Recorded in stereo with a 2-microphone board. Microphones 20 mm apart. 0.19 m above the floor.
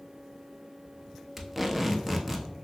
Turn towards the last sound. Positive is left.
turn(degrees=-10)  # may be behind; listen again after turning